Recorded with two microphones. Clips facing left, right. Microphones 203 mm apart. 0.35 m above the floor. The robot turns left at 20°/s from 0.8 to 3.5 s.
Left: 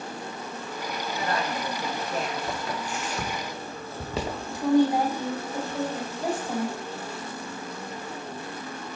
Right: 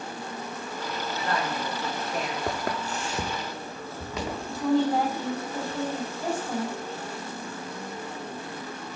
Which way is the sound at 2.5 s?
70° right (ahead or behind).